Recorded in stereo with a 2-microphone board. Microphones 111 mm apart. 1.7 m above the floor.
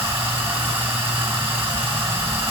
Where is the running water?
50° right (ahead or behind), 1.3 m.